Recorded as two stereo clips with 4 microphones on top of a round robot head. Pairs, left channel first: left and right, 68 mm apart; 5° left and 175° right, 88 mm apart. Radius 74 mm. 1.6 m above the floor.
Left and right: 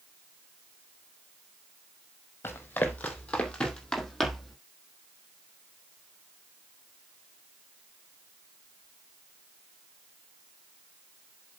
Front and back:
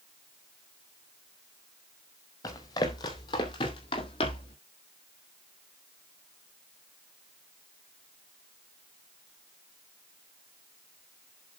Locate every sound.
2.4 s running footsteps: 40° left, 2 m; by 4.6 s straight ahead, 2.5 m